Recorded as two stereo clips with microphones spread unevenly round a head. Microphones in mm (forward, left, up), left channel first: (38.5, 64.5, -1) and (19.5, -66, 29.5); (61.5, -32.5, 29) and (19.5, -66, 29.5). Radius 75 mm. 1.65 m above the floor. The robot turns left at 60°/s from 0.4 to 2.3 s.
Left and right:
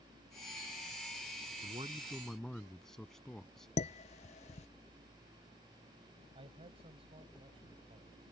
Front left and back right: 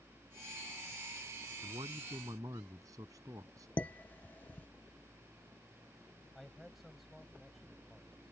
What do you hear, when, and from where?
1.6 s a man speaking: 150° right; by 3.7 s 170° left
3.8 s dishes clattering: 85° left
6.3 s a man speaking: 55° right